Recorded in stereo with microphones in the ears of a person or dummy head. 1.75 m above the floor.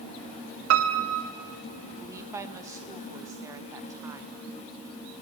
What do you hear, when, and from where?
0.7 s a piano: 70° right (ahead or behind), 1.0 m
2.0 s a woman speaking: 10° right (ahead or behind), 0.8 m